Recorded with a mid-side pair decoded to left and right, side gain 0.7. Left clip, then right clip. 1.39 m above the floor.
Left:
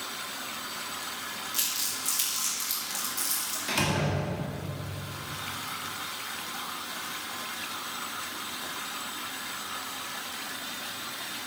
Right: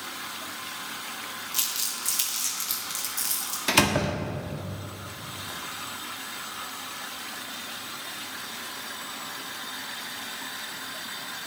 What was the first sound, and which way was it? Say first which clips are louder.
Crumpling: right 2 dB; 15° right.